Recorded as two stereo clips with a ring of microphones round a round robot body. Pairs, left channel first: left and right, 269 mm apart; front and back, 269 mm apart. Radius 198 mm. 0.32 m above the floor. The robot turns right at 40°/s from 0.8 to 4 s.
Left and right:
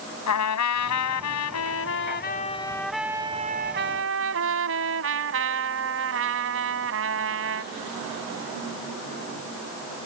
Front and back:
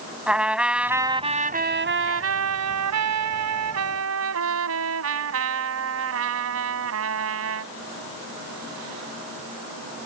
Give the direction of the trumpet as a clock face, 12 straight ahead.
9 o'clock.